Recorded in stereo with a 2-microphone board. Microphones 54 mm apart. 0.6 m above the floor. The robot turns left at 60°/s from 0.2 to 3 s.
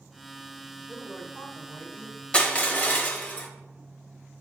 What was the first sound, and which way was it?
A woman speaking, 170° left.